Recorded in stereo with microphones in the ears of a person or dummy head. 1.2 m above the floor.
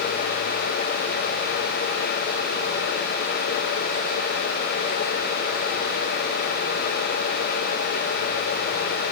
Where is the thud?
I don't hear a thud.